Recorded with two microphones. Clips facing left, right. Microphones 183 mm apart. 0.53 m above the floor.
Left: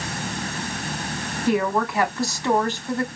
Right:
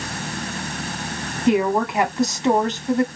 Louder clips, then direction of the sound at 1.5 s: Right 3 dB; 20° right (ahead or behind).